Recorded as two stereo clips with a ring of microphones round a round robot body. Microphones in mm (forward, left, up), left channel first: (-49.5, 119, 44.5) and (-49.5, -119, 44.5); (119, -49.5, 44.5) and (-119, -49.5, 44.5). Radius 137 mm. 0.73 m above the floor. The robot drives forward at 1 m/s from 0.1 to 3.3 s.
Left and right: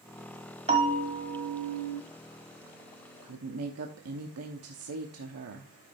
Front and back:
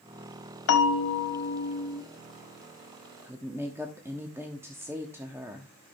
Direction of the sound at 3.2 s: 95° right.